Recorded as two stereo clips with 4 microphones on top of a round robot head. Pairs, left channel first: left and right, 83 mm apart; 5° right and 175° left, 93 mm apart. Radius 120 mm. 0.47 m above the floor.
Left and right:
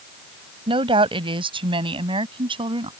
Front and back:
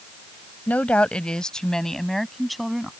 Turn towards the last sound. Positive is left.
turn(degrees=-95)